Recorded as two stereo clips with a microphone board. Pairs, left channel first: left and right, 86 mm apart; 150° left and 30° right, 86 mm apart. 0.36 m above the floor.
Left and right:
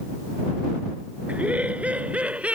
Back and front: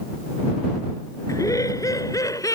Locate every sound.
1.3 s laughter: 165° right